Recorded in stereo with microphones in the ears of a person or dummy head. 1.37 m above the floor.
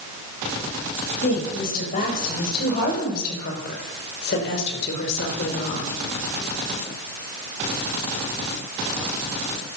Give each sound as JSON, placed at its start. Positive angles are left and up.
{"t": 1.2, "sound": "a woman speaking", "side_deg": 45, "distance_m": 6.5}